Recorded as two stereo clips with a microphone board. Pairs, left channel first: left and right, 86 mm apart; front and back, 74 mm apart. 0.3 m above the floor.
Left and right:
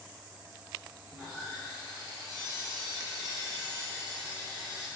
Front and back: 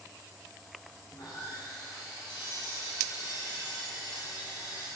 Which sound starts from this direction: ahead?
Sawing, at 1.1 s.